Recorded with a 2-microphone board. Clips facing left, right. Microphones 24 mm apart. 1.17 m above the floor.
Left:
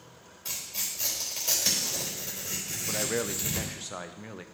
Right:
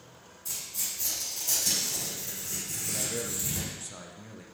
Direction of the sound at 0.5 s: 50° left (ahead or behind).